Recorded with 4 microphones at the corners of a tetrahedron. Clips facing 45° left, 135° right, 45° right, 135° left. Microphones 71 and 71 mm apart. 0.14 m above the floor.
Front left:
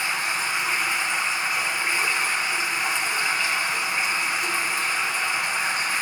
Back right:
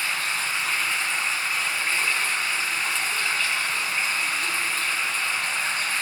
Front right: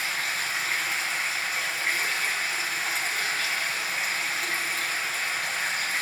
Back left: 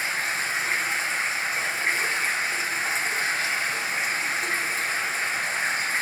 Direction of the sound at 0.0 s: 105° left.